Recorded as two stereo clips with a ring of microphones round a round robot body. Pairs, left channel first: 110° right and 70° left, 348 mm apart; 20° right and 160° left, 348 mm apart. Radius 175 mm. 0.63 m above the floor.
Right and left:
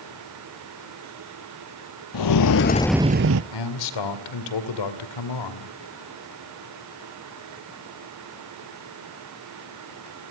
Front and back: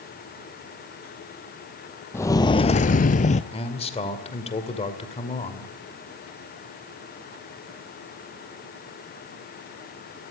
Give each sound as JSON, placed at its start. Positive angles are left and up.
{"t": 2.1, "sound": "footsteps", "azimuth_deg": -105, "distance_m": 1.0}
{"t": 3.5, "sound": "a man speaking", "azimuth_deg": -95, "distance_m": 2.0}